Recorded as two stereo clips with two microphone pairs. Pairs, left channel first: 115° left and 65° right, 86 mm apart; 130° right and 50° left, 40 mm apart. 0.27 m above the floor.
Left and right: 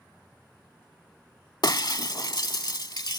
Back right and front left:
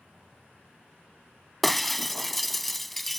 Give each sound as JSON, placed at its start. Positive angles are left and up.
{"t": 1.6, "sound": "breaking glass", "azimuth_deg": 140}